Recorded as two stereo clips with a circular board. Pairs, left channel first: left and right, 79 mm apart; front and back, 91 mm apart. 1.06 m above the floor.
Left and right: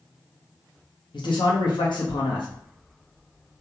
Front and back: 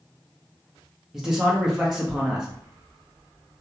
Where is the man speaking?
95° left, 0.8 m.